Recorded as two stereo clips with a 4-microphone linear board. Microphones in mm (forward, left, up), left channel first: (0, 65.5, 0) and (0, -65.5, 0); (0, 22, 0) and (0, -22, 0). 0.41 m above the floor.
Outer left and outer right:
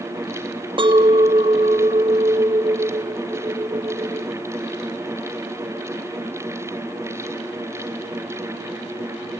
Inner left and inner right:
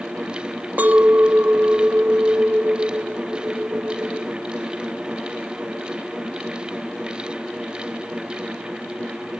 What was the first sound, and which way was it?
A clink, 40° right (ahead or behind).